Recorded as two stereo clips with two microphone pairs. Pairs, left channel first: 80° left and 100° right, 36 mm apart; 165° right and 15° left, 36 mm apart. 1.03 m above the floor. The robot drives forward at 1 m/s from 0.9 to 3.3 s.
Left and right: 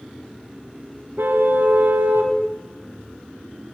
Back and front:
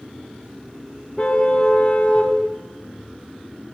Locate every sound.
1.2 s a car horn: 110° right, 5 m; by 2.4 s 120° right, 5.5 m